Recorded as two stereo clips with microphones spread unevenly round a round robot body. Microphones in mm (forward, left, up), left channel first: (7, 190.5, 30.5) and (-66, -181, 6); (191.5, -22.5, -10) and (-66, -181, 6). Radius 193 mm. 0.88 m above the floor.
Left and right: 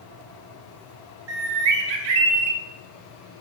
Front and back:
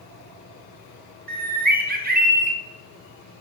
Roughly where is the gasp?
No gasp in this recording.